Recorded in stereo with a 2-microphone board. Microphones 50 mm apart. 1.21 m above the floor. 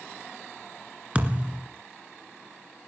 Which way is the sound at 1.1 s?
25° right (ahead or behind).